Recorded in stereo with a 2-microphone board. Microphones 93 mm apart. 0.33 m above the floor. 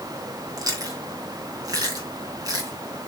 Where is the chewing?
40° right (ahead or behind), 2.5 m.